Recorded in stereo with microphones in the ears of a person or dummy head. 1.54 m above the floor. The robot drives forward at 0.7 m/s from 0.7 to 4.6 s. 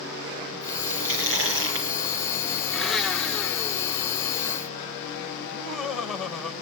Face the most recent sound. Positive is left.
turn(degrees=0)  # may be behind; listen again after turning